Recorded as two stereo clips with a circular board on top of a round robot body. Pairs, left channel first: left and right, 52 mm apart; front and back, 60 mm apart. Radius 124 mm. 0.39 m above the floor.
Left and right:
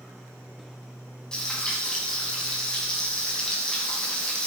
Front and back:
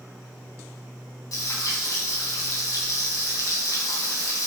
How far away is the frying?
About 4.5 m.